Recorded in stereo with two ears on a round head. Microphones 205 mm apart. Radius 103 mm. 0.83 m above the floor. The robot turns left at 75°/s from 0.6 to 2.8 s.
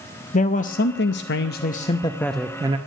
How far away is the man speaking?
About 0.7 m.